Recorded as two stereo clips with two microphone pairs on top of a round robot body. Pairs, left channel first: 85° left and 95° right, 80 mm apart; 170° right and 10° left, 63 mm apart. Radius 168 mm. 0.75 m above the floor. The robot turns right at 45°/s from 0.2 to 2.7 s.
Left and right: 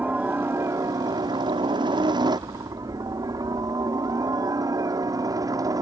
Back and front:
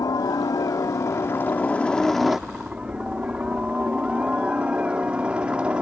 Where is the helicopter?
170° right; by 5.8 s 55° right.